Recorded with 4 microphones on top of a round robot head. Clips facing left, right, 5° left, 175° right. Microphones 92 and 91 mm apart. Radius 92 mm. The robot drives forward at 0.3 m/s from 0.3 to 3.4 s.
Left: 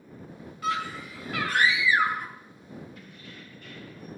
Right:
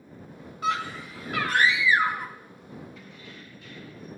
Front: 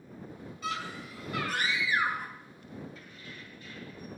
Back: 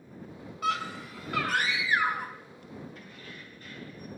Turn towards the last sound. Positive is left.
turn(degrees=140)